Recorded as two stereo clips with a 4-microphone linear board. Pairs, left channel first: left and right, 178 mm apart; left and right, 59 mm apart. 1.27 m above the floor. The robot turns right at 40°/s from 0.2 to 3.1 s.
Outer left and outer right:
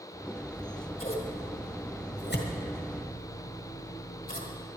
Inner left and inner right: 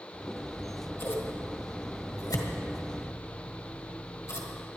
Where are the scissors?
10° left (ahead or behind), 1.6 m; by 4.7 s 55° left (ahead or behind), 1.6 m.